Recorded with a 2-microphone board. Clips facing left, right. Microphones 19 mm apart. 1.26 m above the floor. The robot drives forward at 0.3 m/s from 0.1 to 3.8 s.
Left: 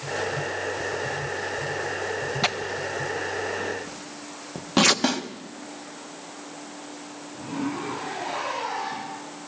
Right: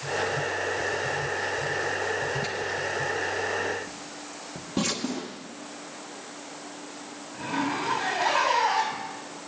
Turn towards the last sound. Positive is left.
turn(degrees=-45)  # may be behind; listen again after turning